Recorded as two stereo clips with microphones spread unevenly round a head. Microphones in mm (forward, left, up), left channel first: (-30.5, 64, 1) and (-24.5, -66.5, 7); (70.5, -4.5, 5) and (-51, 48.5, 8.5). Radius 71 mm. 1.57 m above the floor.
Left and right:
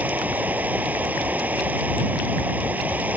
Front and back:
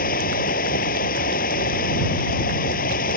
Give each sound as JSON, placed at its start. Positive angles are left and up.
{"t": 0.0, "sound": "running water", "azimuth_deg": -5}